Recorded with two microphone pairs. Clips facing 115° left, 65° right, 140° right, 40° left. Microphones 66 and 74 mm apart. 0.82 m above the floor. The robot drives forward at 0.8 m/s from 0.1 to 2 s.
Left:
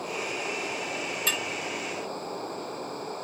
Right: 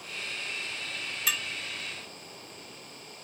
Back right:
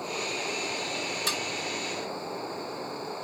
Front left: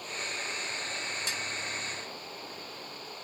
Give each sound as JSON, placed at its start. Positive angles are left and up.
{"t": 0.0, "sound": "running water", "azimuth_deg": 160}
{"t": 1.3, "sound": "dishes clattering", "azimuth_deg": -150}